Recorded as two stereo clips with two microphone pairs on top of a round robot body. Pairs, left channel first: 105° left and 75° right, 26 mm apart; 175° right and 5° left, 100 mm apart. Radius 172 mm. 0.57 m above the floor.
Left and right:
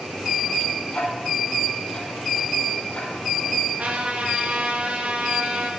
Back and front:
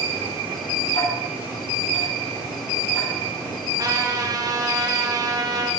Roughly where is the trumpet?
Ahead right.